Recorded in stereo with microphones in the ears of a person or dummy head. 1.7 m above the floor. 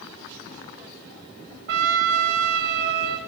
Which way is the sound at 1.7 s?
55° right (ahead or behind).